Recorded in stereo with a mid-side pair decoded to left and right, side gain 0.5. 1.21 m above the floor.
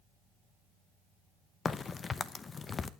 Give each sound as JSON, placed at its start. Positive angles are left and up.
{"t": 1.6, "sound": "a crack", "azimuth_deg": 35, "distance_m": 0.9}